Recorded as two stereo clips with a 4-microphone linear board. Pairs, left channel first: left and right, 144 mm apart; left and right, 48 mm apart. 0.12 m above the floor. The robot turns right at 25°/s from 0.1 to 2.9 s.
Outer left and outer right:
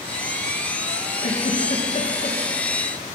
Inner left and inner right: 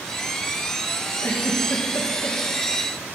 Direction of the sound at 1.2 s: 75° left (ahead or behind).